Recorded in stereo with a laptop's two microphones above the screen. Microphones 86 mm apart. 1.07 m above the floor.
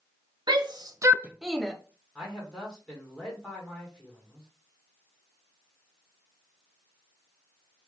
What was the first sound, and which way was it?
A shout, 65° right (ahead or behind).